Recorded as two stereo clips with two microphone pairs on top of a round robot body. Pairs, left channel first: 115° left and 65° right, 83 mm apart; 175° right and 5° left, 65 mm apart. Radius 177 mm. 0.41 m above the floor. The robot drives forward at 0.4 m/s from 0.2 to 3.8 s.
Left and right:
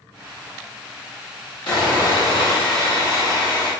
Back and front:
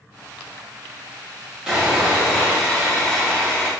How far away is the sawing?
About 1.9 m.